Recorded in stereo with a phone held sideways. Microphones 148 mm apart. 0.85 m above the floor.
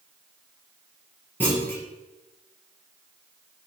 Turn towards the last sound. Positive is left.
turn(degrees=15)  # may be behind; listen again after turning